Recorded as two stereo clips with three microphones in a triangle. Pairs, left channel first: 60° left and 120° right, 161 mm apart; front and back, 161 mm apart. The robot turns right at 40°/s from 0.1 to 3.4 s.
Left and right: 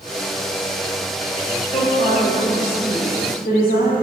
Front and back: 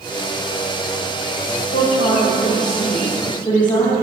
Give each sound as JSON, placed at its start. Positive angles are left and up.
{"t": 1.7, "sound": "a woman speaking", "azimuth_deg": -5, "distance_m": 5.5}